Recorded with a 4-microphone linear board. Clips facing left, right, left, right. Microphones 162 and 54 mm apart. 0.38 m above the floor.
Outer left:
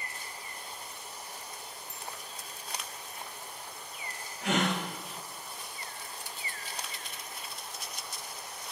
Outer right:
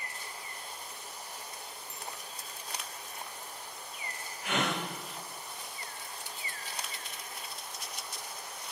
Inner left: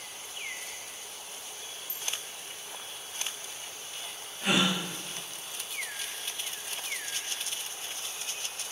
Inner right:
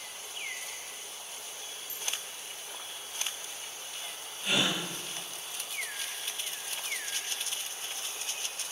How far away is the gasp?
About 6.5 m.